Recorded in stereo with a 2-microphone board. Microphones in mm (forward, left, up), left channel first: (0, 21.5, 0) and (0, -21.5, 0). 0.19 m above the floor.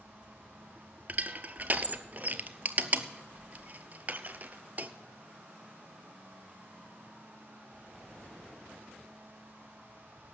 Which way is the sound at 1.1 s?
40° right (ahead or behind).